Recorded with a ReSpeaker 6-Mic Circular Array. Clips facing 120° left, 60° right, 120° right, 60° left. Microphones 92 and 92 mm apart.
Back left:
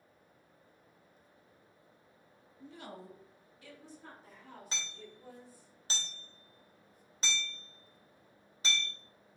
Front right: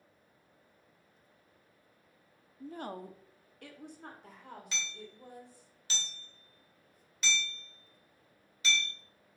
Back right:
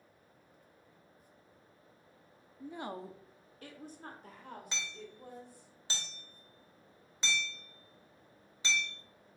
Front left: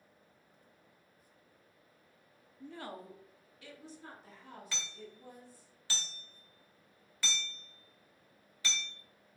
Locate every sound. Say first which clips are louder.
2.6 s a woman speaking: front right 7 dB, back right 3 dB; 40° right, 0.6 m; by 5.7 s 90° right, 3 m
4.7 s hammering: front right 2 dB, back right 2 dB; 170° left, 2.5 m